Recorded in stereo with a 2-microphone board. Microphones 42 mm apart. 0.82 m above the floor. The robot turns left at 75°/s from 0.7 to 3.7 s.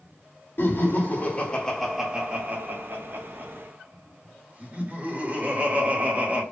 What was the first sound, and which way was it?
Laughter, 85° left.